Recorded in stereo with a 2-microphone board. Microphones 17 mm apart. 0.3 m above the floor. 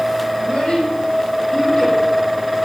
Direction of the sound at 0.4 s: 75° left (ahead or behind).